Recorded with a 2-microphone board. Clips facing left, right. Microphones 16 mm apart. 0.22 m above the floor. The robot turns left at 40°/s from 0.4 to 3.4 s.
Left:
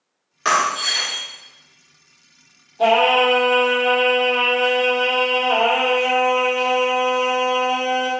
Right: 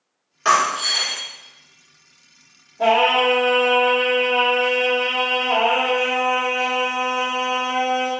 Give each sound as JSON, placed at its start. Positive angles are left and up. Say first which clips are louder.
{"t": 0.5, "sound": "breaking glass", "louder": "right 1 dB", "azimuth_deg": 165, "distance_m": 1.3}
{"t": 2.8, "sound": "singing", "louder": "left 1 dB", "side_deg": 55, "distance_m": 1.6}